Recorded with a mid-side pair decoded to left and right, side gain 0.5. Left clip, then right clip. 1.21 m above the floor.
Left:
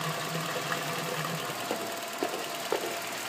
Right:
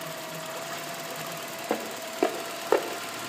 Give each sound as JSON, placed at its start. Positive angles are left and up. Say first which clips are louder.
{"t": 1.7, "sound": "footsteps", "louder": "right 2 dB", "azimuth_deg": -35, "distance_m": 5.5}